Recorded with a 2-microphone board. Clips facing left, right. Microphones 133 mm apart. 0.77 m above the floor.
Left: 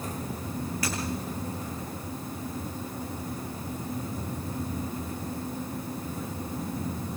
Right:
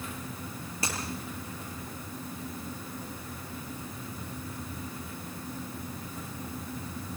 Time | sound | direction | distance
0.8 | breaking glass | 25° right (ahead or behind) | 9.5 m